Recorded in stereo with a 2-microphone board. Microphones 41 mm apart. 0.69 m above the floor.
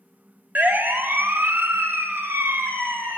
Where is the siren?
50° right (ahead or behind), 2 m; by 3.2 s 70° right (ahead or behind), 5 m.